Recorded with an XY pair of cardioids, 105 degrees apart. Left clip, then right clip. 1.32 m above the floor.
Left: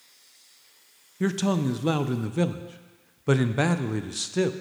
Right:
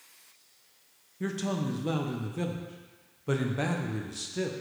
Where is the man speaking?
50° left, 0.5 m.